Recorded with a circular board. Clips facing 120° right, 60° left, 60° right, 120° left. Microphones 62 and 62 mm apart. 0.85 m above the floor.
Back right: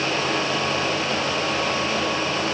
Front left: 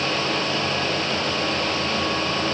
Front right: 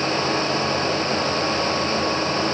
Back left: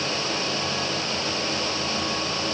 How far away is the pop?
No pop in this recording.